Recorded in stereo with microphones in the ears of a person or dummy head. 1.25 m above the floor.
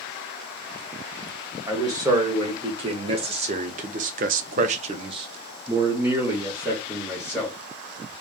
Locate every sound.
1.7 s a man speaking: 25° right (ahead or behind), 1.6 m; by 7.6 s centre (ahead or behind), 1.7 m